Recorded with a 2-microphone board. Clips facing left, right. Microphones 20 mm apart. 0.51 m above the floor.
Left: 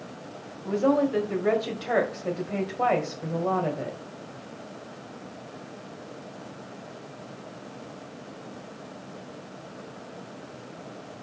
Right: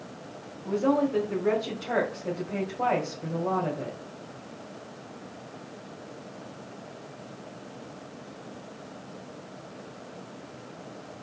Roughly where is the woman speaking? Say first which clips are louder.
Left 2 dB; left.